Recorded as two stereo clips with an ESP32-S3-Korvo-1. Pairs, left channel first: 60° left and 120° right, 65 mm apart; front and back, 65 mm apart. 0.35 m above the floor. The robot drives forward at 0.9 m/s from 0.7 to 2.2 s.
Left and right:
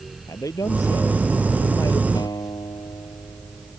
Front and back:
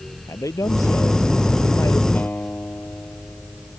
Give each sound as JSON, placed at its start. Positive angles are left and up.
{"t": 0.3, "sound": "a man speaking", "azimuth_deg": 30}
{"t": 2.1, "sound": "a guitar", "azimuth_deg": 65}